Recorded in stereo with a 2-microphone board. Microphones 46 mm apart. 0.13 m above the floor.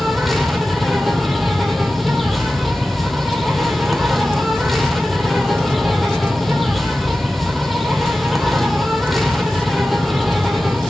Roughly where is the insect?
Centre.